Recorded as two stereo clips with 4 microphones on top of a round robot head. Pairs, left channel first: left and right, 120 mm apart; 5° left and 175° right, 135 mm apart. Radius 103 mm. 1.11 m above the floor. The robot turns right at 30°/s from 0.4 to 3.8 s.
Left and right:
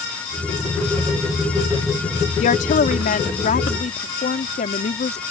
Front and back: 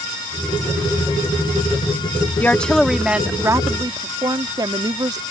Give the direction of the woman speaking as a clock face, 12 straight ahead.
9 o'clock.